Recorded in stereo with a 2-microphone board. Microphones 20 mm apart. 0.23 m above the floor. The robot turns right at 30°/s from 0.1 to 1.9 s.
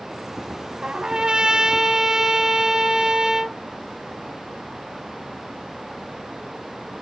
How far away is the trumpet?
About 0.7 m.